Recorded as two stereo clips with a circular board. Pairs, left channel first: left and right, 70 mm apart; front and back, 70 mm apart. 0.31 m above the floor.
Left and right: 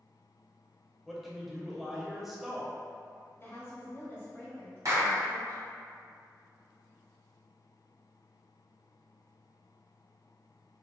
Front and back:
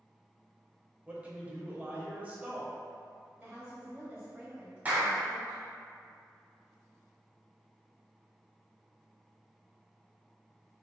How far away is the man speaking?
About 0.9 m.